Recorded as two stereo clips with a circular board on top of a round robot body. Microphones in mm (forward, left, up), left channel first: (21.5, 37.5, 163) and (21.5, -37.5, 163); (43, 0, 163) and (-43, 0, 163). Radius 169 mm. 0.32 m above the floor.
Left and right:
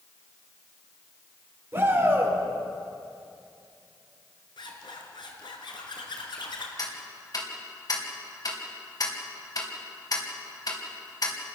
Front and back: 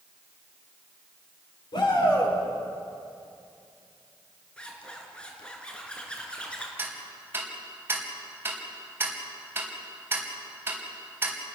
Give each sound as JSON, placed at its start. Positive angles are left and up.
{"t": 1.7, "sound": "a shout", "azimuth_deg": -25, "distance_m": 7.5}
{"t": 4.6, "sound": "a zipper", "azimuth_deg": 80, "distance_m": 4.0}
{"t": 6.8, "sound": "ticking", "azimuth_deg": 115, "distance_m": 4.0}